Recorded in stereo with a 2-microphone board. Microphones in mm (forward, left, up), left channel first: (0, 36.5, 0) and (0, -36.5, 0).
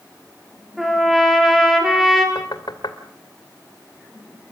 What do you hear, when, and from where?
0.8 s a trumpet: 5° right (ahead or behind), 4.5 m
2.4 s knocking: 75° left (ahead or behind), 2 m